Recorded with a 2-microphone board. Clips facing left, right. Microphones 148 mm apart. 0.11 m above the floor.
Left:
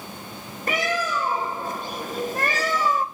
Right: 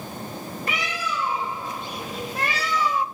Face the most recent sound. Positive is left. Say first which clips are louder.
# left 7 dB
turn(degrees=45)  # may be behind; listen again after turning